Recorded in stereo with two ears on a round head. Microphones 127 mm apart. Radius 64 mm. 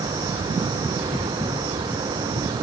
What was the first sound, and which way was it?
Only background noise.